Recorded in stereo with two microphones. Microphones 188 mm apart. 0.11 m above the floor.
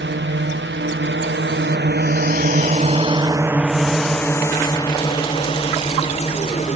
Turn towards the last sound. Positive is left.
turn(degrees=35)  # may be behind; listen again after turning